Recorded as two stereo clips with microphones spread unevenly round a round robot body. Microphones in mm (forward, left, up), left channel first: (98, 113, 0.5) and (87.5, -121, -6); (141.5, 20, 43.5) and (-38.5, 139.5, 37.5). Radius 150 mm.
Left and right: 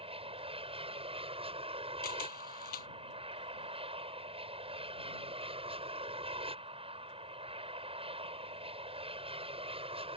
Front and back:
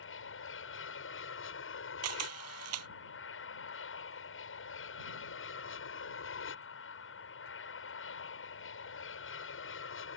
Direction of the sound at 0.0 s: 30° right.